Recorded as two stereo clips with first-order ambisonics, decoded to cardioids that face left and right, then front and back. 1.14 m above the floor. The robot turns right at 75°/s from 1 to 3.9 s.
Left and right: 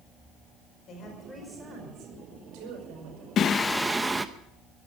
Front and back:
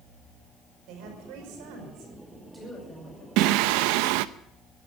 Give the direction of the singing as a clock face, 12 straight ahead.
7 o'clock.